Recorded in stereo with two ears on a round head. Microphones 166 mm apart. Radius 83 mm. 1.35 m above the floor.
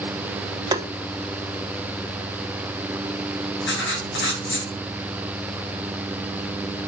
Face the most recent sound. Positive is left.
turn(degrees=65)  # may be behind; listen again after turning